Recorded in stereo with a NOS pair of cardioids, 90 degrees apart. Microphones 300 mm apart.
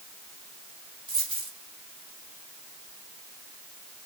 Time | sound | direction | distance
1.1 | a dropped coin | 20° right | 2 m